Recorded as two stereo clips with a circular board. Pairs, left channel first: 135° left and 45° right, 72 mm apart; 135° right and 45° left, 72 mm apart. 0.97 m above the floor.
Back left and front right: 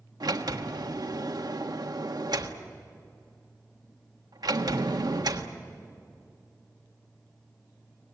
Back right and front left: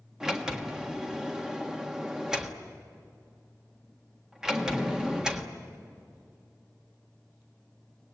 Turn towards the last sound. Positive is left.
turn(degrees=-35)